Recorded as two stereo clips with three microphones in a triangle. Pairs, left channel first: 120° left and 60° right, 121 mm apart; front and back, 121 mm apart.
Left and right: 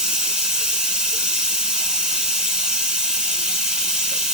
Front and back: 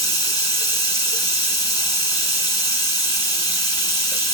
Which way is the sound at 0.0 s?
15° left.